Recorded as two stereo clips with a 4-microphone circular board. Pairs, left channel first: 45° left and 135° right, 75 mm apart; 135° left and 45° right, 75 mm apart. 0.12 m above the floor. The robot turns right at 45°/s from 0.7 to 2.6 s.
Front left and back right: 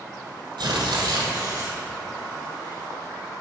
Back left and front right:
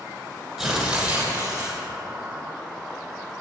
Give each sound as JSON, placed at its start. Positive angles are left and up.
{"t": 0.6, "sound": "tearing paper", "azimuth_deg": -125, "distance_m": 2.0}